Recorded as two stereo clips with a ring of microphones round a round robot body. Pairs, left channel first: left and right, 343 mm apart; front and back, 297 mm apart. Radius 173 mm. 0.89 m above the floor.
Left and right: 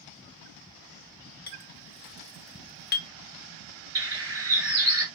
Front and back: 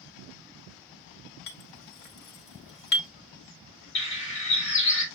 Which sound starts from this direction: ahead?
A bird, at 4.0 s.